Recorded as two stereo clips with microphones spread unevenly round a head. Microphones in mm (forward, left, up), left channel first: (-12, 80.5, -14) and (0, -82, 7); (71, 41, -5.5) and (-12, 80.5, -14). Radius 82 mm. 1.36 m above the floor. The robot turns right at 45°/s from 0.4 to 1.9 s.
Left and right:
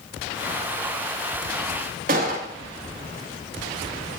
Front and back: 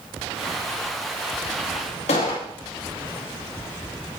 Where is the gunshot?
45° right, 2 m.